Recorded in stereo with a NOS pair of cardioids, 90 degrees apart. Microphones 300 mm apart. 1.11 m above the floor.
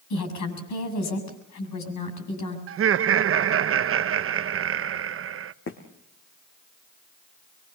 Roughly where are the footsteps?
Ahead left.